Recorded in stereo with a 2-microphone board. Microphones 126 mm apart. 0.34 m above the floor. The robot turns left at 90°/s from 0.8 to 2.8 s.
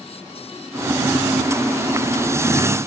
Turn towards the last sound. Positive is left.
No sound to turn to.